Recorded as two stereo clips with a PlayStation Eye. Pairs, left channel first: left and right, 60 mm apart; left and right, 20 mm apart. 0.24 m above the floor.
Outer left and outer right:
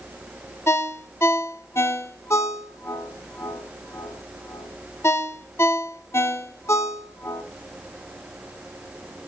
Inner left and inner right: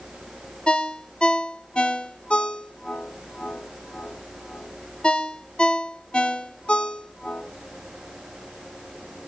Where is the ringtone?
50° left (ahead or behind), 0.6 m.